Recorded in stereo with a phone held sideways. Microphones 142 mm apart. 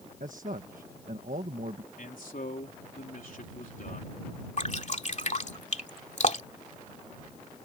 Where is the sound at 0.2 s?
70° right (ahead or behind).